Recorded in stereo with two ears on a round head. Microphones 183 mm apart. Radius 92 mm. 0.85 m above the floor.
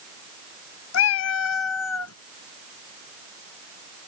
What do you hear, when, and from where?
0.9 s a cat meowing: 65° left (ahead or behind); by 2.1 s 80° left